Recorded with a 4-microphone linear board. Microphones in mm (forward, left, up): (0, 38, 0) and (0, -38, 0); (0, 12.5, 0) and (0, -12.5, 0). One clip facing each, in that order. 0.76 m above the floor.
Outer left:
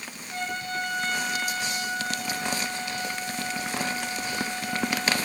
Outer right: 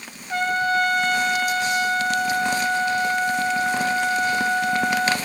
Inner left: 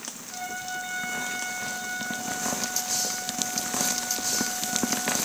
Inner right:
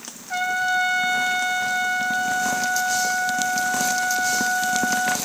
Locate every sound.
0.3 s a trumpet: 65° right (ahead or behind), 2.5 m